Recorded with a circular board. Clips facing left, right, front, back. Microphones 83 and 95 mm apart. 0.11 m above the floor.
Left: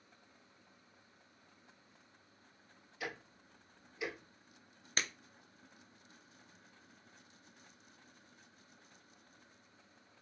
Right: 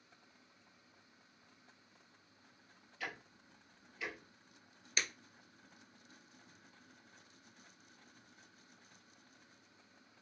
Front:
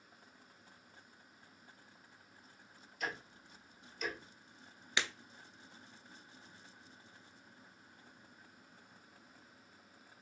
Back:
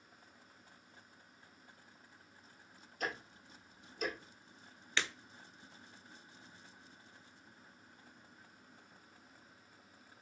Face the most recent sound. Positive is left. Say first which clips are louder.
# left 1 dB, even
turn(degrees=70)